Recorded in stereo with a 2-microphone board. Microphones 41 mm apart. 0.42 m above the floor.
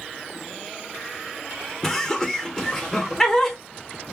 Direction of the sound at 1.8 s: 10° left (ahead or behind).